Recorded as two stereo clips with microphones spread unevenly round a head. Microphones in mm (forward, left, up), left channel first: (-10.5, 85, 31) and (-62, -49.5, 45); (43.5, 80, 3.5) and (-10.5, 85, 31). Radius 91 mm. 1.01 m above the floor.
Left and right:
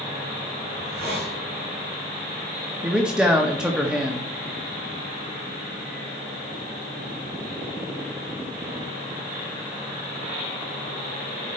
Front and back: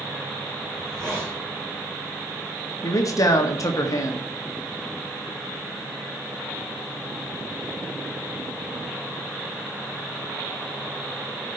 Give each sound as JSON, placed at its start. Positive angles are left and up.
{"t": 0.7, "sound": "a hiss", "azimuth_deg": -105, "distance_m": 5.0}
{"t": 2.8, "sound": "a man speaking", "azimuth_deg": -25, "distance_m": 1.3}